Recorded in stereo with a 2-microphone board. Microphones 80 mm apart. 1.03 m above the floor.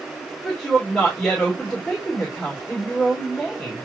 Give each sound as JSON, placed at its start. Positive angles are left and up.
{"t": 0.4, "sound": "a woman speaking", "side_deg": 15, "distance_m": 3.0}